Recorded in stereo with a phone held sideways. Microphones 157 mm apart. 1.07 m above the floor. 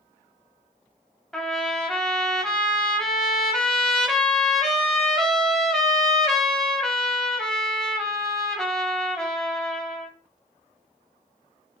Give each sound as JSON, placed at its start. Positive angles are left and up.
{"t": 1.3, "sound": "a trumpet", "side_deg": 5, "distance_m": 0.7}